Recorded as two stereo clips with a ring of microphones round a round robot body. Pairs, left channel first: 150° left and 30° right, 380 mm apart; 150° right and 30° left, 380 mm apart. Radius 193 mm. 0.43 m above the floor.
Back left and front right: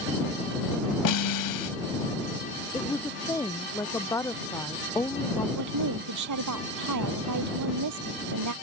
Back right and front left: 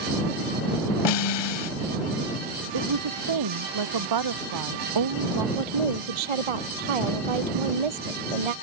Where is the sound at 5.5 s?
15° left.